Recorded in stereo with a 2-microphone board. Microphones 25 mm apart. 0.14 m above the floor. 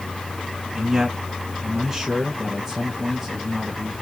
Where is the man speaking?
10° right (ahead or behind), 1.4 m.